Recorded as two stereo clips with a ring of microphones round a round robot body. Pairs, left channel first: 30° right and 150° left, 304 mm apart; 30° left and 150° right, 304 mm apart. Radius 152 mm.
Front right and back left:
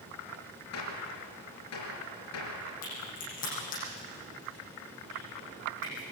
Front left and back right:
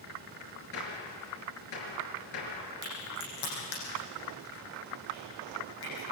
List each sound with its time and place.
0.7 s a gunshot: 10° left, 5 m
2.8 s a crack: 35° left, 9.5 m